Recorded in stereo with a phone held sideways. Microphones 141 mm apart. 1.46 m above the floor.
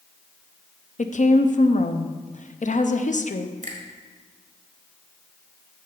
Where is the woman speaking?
60° left (ahead or behind), 0.6 m.